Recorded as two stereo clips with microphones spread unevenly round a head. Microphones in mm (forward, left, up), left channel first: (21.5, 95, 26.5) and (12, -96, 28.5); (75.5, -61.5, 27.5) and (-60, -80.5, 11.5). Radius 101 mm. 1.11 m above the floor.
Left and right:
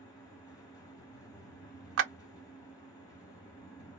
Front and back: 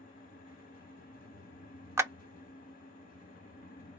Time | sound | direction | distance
0.0 | a fan | 15° left | 0.9 m
2.0 | a clap | 105° right | 0.5 m